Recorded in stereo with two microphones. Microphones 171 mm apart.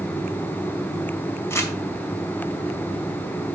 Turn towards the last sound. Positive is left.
turn(degrees=15)  # may be behind; listen again after turning